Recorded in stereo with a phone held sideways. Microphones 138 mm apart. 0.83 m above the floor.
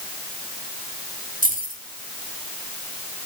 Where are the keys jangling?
85° right, 4 m.